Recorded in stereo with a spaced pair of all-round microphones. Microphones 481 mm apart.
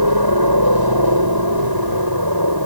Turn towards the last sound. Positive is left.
turn(degrees=-45)  # may be behind; listen again after turning